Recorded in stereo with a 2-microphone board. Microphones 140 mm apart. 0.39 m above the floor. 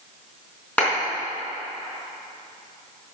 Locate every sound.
0.8 s a clap: 10° left (ahead or behind), 4 m